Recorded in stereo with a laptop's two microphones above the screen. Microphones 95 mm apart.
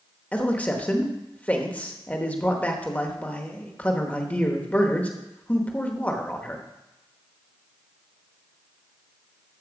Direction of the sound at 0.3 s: 15° left (ahead or behind).